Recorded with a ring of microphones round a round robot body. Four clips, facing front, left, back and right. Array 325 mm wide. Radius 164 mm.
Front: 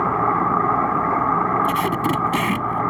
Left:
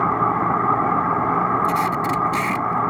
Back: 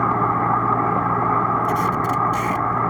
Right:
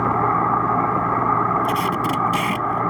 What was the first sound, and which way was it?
Tape being pulled, 10° right.